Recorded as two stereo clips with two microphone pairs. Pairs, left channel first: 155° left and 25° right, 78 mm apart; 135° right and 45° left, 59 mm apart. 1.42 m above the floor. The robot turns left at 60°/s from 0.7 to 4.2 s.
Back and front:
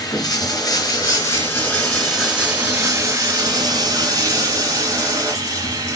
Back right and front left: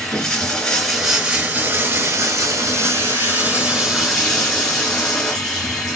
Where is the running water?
150° left, 2 m; by 6.0 s 60° right, 2 m.